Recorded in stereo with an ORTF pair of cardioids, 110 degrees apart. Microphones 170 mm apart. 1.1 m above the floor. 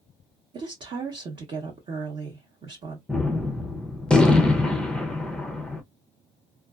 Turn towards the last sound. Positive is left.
turn(degrees=5)